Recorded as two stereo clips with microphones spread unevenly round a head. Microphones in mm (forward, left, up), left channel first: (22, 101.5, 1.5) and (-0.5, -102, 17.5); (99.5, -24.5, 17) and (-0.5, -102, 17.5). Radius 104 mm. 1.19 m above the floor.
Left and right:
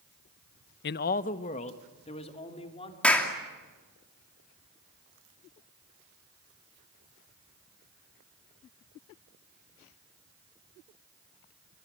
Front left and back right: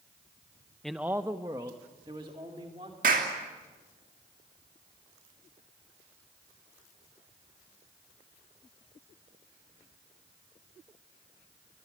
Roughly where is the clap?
Behind.